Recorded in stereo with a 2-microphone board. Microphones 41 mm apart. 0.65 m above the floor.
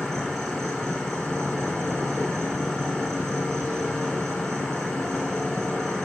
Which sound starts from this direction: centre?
An insect, at 0.0 s.